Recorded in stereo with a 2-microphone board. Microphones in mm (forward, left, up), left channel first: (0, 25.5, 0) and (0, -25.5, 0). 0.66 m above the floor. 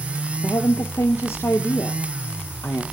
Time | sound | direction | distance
0.4 | a woman speaking | 65° left (ahead or behind) | 1.3 m